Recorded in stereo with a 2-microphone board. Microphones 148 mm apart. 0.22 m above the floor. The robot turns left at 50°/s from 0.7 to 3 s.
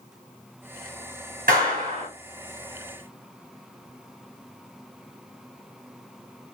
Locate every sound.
1.5 s a clap: 75° right (ahead or behind), 2.5 m; by 2.1 s 60° right (ahead or behind), 2.5 m